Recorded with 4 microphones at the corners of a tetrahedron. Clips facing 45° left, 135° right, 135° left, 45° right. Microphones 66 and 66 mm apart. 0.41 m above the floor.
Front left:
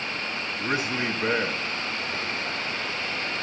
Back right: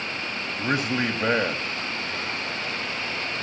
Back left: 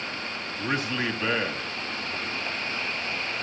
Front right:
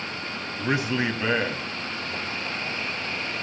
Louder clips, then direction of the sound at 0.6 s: Back right 3 dB, front right 3 dB; 120° right.